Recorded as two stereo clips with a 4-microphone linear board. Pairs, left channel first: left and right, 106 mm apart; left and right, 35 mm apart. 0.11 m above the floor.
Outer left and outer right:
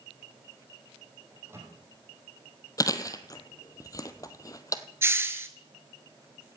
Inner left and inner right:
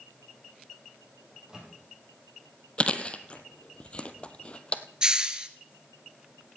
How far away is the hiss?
About 0.8 m.